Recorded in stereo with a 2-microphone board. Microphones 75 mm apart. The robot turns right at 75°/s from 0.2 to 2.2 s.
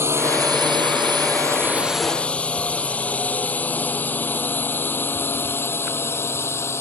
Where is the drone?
35° right (ahead or behind); by 6.8 s 35° left (ahead or behind).